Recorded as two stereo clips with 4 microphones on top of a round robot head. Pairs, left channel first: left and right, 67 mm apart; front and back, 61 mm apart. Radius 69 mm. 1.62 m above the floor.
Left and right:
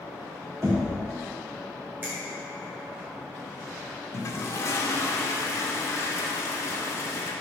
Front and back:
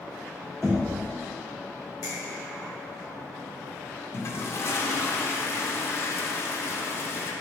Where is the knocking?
85° right, 0.9 m.